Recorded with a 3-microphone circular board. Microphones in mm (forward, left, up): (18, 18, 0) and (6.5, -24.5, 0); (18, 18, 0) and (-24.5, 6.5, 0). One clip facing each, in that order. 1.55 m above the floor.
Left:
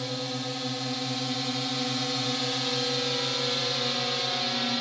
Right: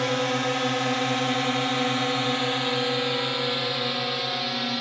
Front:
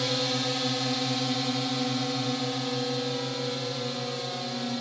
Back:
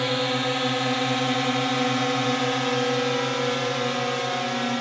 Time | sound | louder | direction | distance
0.0 | a drone | right 9 dB, back 5 dB | 110° right | ?